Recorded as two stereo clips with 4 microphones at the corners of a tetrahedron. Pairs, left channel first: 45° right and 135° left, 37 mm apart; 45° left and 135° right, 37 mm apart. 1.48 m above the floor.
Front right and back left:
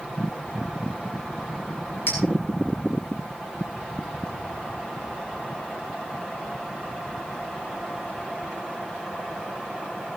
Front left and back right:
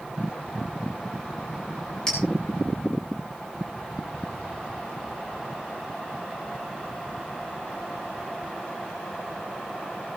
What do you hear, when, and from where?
2.1 s a clink: 30° right, 6.5 m